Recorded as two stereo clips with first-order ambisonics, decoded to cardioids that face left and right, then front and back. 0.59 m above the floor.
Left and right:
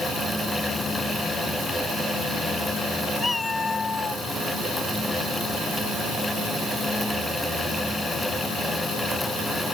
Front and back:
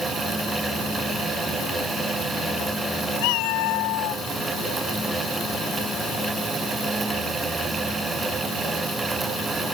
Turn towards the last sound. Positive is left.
turn(degrees=25)